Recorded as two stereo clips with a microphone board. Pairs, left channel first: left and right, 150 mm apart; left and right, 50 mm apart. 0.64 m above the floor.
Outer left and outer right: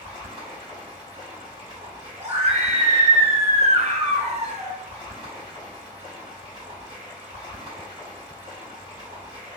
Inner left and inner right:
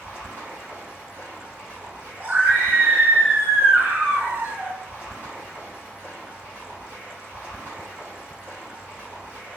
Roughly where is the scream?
Right.